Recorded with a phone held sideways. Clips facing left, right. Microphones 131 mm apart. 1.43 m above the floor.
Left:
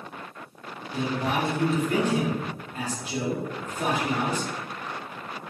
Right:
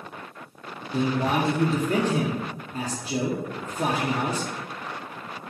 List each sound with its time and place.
0.9 s a man speaking: 30° right (ahead or behind), 1.0 m